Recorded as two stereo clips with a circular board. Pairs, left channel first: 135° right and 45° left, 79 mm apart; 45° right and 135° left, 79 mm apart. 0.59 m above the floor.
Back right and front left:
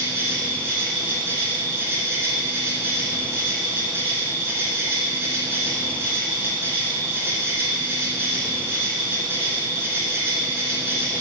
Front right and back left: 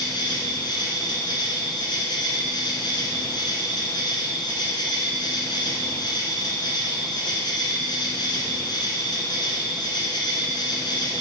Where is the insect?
20° right, 1.6 m.